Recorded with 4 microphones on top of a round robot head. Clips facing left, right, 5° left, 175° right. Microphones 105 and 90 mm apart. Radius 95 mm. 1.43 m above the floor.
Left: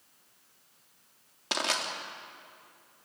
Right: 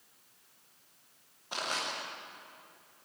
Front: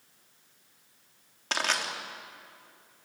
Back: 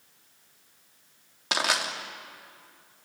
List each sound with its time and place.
1.5 s crushing: 105° left, 3 m